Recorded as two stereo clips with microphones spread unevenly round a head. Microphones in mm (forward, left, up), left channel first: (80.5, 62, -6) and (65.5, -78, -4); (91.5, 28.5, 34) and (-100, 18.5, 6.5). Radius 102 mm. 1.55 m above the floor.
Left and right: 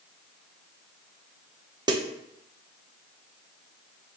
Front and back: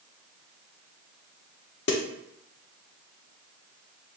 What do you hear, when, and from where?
1.9 s a snare drum: 35° right, 0.9 m